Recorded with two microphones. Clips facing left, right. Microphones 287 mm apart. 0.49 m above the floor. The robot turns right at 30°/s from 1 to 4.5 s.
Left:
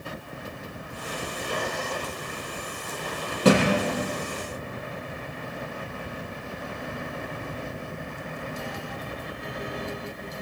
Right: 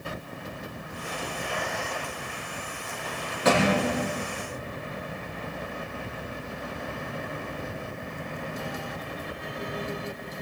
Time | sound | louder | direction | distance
3.5 | a thud | left 3 dB | 40° left (ahead or behind) | 6.5 m